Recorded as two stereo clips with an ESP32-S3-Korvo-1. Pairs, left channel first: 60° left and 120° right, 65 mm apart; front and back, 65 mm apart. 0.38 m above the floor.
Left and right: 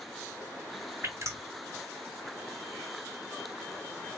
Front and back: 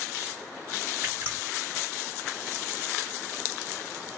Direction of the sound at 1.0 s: 130° right.